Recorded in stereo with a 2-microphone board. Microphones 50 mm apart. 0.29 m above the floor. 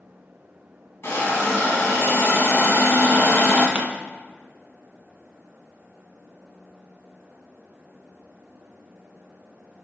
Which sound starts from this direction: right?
A pop, at 3.8 s.